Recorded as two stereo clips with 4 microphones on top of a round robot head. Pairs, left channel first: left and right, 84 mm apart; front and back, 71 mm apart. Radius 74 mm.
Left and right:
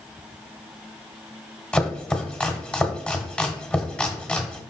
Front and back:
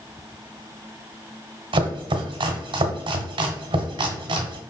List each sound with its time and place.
1.7 s chopping: 170° left, 1.0 m